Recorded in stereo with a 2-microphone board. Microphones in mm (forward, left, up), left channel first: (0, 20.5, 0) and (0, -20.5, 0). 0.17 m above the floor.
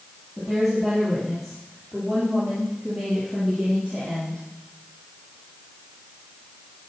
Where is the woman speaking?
5° right (ahead or behind), 5.5 m; by 4.4 s 30° right (ahead or behind), 5.5 m.